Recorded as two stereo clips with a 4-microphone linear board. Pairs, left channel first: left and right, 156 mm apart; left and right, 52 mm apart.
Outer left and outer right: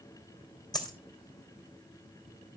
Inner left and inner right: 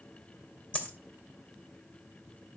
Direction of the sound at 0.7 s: 25° left (ahead or behind).